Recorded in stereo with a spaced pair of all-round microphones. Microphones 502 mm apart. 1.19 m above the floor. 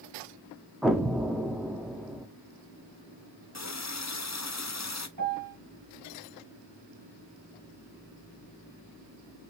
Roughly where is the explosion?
Centre.